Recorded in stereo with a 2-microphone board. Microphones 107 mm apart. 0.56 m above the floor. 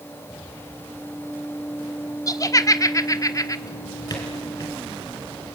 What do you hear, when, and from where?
2.3 s laughter: 35° left (ahead or behind), 0.9 m
3.7 s a drawer: 35° left (ahead or behind), 4.5 m